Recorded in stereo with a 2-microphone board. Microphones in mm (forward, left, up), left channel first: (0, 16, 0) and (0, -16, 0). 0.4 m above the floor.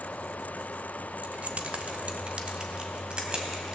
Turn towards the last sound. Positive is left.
turn(degrees=-30)  # may be behind; listen again after turning